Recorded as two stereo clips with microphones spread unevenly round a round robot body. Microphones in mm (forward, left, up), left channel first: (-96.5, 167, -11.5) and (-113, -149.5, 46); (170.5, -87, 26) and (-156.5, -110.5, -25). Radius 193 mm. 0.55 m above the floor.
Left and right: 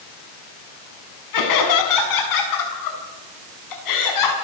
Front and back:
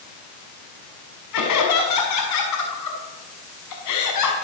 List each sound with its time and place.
1.3 s laughter: 55° left, 5.5 m